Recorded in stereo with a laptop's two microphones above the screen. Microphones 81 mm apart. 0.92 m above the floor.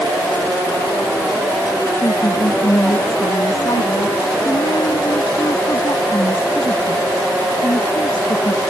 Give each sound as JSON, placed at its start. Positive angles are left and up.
{"t": 2.0, "sound": "a woman speaking", "side_deg": 70}